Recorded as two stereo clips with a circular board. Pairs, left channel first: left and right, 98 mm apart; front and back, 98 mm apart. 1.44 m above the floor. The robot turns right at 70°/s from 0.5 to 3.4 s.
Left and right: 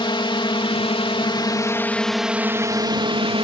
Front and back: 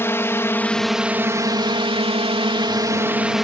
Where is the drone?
65° left; by 3.4 s 90° right.